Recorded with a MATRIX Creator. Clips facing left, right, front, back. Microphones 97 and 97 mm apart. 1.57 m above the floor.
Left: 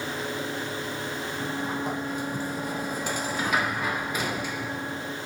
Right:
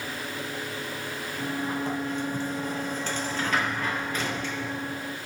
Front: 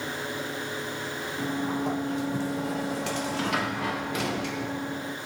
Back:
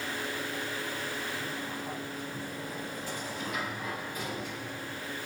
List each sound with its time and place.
1.4 s a sliding door: 10° left, 1.2 m